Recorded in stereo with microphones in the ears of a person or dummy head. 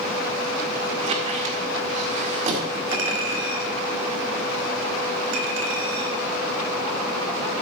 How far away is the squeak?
About 1.9 m.